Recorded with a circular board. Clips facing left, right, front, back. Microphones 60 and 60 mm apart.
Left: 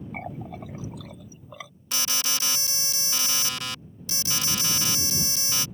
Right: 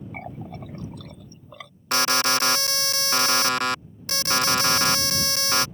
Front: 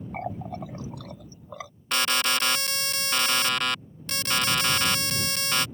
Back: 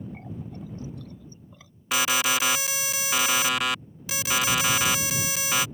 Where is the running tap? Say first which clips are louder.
Left 1 dB, front 6 dB; 5° left.